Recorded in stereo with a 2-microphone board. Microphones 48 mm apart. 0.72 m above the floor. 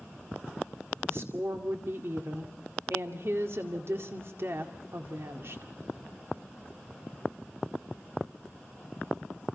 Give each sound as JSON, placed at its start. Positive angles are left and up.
{"t": 1.1, "sound": "a woman speaking", "side_deg": -60, "distance_m": 1.9}